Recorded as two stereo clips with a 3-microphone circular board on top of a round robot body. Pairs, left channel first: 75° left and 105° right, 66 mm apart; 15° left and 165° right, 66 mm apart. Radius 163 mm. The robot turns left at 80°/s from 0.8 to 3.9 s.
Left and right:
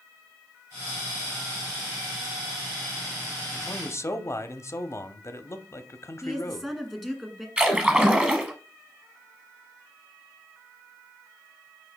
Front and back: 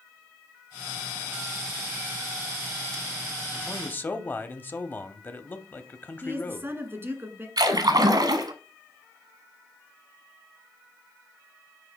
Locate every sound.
3.5 s a man speaking: 90° left, 1.1 m; by 6.7 s 60° left, 1.1 m
6.2 s a woman speaking: straight behind, 1.7 m
7.6 s a splash: straight behind, 1.1 m